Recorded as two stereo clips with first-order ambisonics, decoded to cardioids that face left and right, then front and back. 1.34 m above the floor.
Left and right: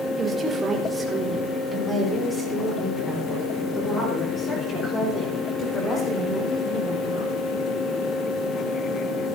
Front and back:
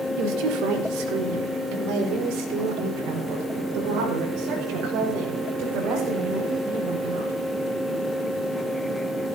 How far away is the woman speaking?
About 3.5 m.